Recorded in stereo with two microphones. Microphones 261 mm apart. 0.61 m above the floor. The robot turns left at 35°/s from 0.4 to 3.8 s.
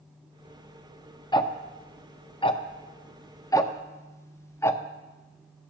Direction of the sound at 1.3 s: 15° left (ahead or behind).